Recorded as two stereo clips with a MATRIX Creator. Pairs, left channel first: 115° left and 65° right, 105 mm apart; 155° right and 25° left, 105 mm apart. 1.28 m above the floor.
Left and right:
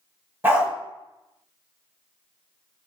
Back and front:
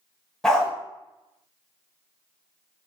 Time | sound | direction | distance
0.4 | a dog barking | 85° right | 1.0 m